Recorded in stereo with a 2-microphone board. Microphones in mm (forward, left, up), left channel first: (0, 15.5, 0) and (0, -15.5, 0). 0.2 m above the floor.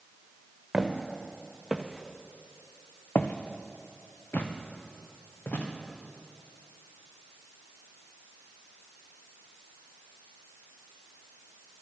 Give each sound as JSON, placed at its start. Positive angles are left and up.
{"t": 0.7, "sound": "footsteps", "side_deg": -10, "distance_m": 1.8}